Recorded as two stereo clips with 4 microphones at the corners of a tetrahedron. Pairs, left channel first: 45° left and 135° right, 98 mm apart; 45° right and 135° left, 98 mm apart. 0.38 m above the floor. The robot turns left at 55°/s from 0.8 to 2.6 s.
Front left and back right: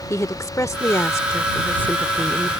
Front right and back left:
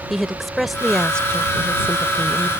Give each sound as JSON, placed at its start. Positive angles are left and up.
{"t": 0.1, "sound": "a woman speaking", "azimuth_deg": 45}